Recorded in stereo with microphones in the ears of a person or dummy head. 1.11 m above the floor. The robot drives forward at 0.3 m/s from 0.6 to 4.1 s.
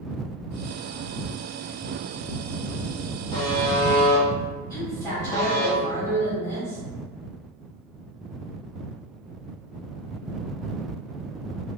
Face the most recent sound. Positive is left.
turn(degrees=10)  # may be behind; listen again after turning